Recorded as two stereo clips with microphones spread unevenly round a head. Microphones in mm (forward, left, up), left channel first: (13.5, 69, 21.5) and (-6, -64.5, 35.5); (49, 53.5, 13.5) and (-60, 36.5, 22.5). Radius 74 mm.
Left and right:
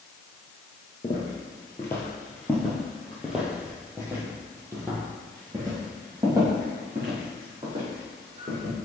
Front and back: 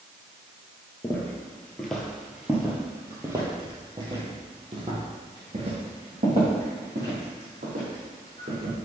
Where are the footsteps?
55° left, 1.5 m; by 8.8 s 150° right, 4 m.